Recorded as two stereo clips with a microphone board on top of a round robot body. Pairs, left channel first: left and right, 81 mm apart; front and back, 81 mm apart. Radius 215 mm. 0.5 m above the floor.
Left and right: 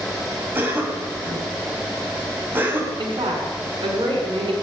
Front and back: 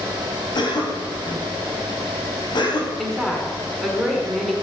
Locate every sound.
0.6 s a cough: 25° right, 5 m
3.0 s a woman speaking: 80° right, 6.5 m